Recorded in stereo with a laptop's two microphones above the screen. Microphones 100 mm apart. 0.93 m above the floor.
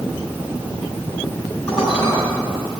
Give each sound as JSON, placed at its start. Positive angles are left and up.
{"t": 1.7, "sound": "dishes clattering", "side_deg": 10, "distance_m": 7.0}